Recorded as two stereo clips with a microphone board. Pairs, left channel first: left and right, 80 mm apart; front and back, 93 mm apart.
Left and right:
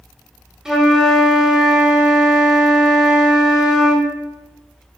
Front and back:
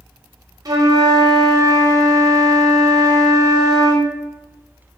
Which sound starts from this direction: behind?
A flute, at 0.7 s.